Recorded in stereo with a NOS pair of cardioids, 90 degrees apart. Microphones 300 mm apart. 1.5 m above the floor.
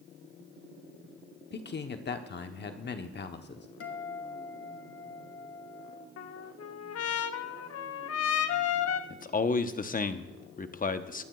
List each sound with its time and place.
1.5 s a man speaking: 35° left, 0.9 m
3.8 s a guitar: 50° left, 1.8 m
6.2 s a trumpet: 55° left, 0.9 m
9.1 s a man speaking: 30° left, 1.0 m